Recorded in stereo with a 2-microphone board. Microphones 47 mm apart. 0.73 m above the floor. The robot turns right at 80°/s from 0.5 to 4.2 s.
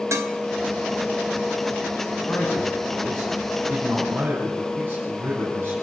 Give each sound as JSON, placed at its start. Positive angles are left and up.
{"t": 0.1, "sound": "dishes clattering", "side_deg": -80, "distance_m": 2.0}
{"t": 2.3, "sound": "a man speaking", "azimuth_deg": 75, "distance_m": 6.5}